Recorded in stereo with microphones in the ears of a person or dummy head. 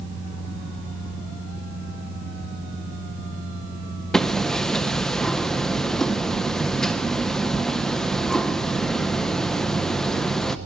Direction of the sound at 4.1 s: 5° left (ahead or behind).